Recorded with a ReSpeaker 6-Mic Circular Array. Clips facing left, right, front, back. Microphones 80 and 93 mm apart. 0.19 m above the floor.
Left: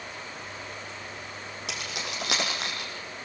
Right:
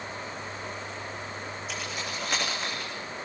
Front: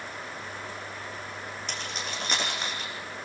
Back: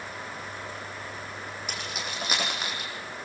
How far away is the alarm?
No alarm in this recording.